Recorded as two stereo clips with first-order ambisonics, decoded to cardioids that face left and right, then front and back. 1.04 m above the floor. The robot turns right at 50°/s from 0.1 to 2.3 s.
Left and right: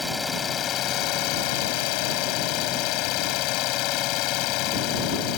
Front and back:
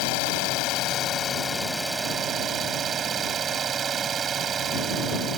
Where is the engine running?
5° left; by 5.4 s 115° left.